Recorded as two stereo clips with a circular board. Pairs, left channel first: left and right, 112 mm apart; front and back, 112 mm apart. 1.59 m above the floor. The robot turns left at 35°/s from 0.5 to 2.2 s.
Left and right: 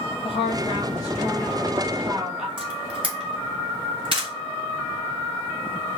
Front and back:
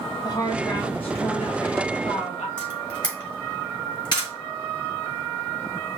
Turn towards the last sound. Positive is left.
turn(degrees=-50)